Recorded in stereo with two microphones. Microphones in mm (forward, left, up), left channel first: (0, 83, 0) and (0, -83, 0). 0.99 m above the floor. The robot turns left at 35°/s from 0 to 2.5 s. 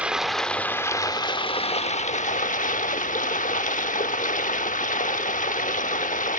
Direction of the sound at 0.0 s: 170° right.